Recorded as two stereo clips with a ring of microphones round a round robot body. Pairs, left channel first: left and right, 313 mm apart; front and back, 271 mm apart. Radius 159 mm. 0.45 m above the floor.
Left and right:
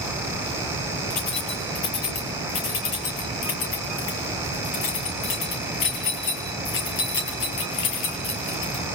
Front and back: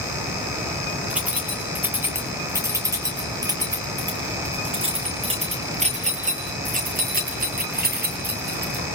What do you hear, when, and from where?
1.1 s keys jangling: 95° left, 7.5 m; by 8.8 s 130° left, 6.5 m